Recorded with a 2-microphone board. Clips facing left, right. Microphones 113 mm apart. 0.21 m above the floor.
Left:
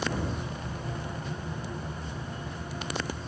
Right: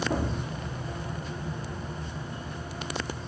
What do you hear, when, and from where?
0.1 s an explosion: 45° right (ahead or behind), 3 m